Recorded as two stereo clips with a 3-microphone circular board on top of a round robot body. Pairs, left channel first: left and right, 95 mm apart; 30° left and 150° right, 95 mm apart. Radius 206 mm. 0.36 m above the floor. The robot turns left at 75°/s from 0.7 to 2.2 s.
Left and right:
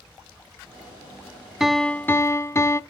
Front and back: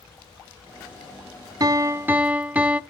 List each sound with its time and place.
1.6 s a piano: 175° right, 0.9 m; by 2.8 s 140° left, 0.9 m